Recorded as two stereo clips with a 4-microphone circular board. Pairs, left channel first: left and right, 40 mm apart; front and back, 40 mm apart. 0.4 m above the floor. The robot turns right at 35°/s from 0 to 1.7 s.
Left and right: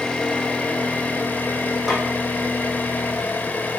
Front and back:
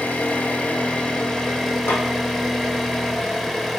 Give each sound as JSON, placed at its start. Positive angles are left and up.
{"t": 0.0, "sound": "an engine running", "azimuth_deg": 20, "distance_m": 1.0}
{"t": 1.9, "sound": "a snare drum", "azimuth_deg": -10, "distance_m": 2.5}